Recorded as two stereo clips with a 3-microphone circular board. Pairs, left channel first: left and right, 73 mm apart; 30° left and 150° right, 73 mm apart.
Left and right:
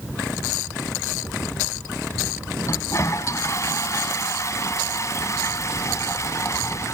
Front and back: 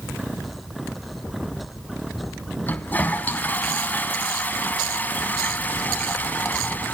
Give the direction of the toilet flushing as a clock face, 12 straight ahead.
9 o'clock.